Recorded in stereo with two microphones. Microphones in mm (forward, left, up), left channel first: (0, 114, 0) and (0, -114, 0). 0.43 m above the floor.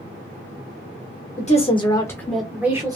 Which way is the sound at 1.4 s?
30° left (ahead or behind).